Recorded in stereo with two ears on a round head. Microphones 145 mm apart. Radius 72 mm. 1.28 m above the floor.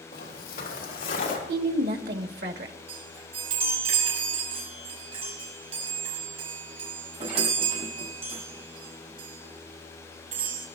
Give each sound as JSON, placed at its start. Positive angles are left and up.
{"t": 0.1, "sound": "footsteps", "side_deg": 60, "distance_m": 2.5}
{"t": 1.5, "sound": "a woman speaking", "side_deg": -65, "distance_m": 1.3}
{"t": 2.9, "sound": "a chime", "side_deg": -35, "distance_m": 6.5}